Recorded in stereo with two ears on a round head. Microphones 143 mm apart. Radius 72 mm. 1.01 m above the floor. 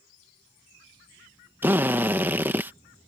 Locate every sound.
1.6 s a drill: 15° right (ahead or behind)